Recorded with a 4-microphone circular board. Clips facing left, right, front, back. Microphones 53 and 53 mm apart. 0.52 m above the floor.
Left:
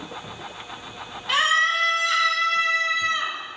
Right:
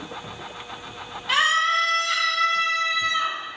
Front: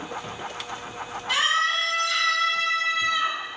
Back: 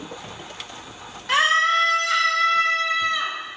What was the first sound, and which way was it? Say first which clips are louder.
A scream: even, back 5 dB; straight behind.